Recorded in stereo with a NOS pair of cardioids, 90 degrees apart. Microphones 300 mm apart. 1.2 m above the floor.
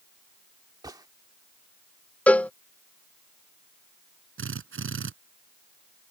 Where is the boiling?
No boiling in this recording.